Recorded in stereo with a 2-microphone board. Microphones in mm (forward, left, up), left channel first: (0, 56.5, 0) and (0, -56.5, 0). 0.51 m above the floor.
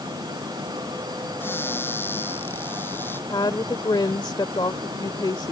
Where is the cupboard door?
20° left (ahead or behind).